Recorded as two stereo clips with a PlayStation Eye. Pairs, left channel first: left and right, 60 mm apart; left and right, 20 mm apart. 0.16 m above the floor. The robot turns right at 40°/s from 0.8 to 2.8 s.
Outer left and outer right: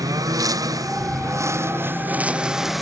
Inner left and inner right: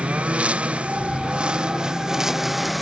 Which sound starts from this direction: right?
A lawn mower, at 0.0 s.